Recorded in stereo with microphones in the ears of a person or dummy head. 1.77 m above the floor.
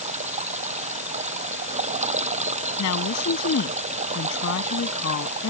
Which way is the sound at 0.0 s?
40° right (ahead or behind).